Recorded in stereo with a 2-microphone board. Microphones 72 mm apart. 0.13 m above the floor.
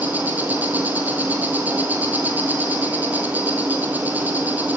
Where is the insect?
25° right (ahead or behind), 1.3 m.